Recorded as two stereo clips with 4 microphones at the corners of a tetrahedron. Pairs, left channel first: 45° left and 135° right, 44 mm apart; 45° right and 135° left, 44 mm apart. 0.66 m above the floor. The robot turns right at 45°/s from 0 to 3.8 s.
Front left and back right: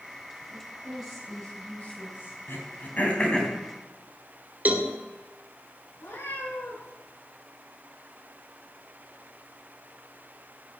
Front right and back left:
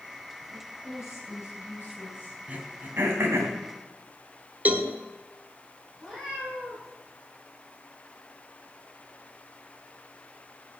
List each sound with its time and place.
0.5 s a woman speaking: 80° right, 6 m; by 2.4 s 5° left, 6 m
2.5 s throat clearing: 75° left, 3 m; by 3.5 s 120° left, 3 m
4.7 s a cowbell: straight behind, 1.3 m
6.0 s a cat meowing: 50° left, 7 m